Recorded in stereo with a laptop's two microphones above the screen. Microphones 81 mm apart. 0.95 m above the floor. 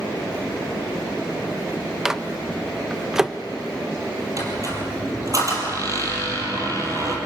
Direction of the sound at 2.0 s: 5° right (ahead or behind).